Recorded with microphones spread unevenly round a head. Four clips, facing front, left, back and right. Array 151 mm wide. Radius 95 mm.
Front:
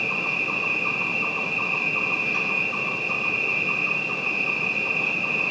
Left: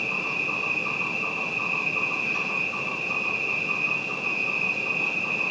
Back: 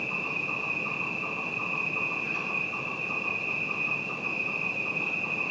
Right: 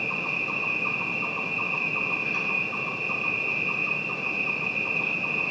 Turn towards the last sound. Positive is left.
turn(degrees=-25)